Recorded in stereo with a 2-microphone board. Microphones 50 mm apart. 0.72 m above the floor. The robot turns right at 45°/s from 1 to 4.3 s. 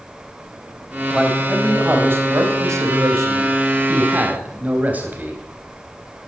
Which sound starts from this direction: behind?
A man speaking, at 1.1 s.